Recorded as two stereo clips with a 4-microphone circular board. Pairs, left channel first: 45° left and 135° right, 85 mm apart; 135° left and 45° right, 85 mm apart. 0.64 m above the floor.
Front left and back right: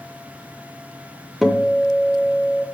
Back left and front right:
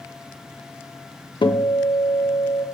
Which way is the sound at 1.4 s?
140° left.